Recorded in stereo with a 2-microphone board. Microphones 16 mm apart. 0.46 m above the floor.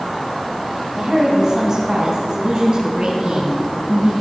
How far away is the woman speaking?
About 2.5 m.